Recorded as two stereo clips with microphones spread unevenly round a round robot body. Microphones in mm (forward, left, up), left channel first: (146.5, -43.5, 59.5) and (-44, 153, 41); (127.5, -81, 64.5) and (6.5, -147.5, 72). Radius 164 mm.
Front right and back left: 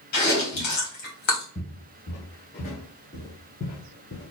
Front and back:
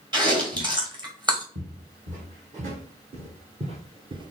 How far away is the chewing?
About 1.9 m.